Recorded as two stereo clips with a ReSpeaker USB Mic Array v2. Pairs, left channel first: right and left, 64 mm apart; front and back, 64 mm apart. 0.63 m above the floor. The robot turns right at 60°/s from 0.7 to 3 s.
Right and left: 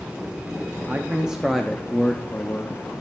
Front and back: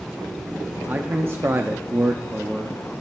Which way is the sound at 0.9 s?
140° left.